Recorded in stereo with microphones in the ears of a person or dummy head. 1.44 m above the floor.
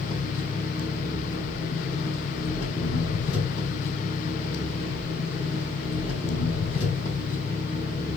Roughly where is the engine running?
Left.